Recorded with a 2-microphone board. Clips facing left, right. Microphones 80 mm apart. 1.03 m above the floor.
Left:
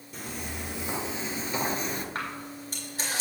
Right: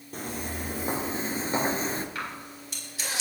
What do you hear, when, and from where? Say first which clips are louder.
0.1 s footsteps: right 3 dB; 45° right (ahead or behind), 1.8 m; by 2.0 s 35° right (ahead or behind), 1.1 m
2.1 s a camera shutter: left 1 dB; 40° left (ahead or behind), 3.5 m